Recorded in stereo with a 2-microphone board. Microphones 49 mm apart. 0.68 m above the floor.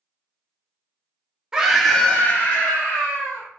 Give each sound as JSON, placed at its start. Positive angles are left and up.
{"t": 1.5, "sound": "a scream", "side_deg": -15, "distance_m": 0.6}